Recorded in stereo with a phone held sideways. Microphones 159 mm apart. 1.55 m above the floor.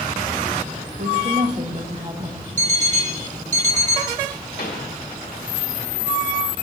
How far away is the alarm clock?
About 1.2 m.